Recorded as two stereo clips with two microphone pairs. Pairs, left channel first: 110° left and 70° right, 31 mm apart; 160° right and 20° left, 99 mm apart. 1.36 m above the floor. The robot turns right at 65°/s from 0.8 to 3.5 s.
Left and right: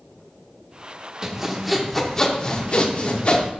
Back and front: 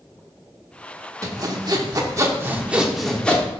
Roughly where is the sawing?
Ahead.